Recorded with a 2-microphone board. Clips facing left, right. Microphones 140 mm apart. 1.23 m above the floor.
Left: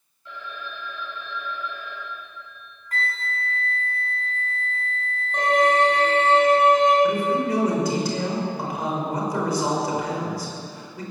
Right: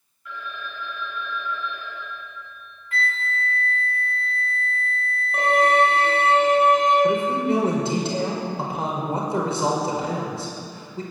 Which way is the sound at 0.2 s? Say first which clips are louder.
Right 1 dB; 30° left (ahead or behind).